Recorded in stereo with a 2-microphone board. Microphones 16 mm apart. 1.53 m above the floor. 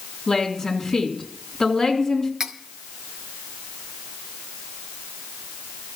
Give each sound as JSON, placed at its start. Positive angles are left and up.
{"t": 0.3, "sound": "a woman speaking", "side_deg": 40, "distance_m": 3.5}
{"t": 2.4, "sound": "cutlery clinking", "side_deg": -35, "distance_m": 1.0}